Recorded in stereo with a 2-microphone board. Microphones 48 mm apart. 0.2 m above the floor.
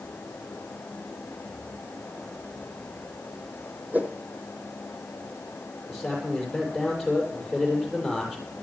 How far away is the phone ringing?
I don't hear a phone ringing.